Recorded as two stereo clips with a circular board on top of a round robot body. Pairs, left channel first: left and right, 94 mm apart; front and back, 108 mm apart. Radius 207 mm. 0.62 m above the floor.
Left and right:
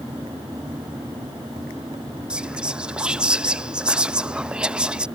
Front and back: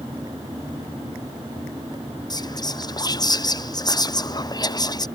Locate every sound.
2.3 s whispering: 15° right